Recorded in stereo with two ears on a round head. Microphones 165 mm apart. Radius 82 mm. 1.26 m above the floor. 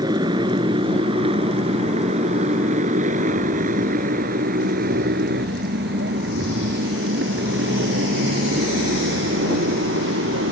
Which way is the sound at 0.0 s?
25° right (ahead or behind).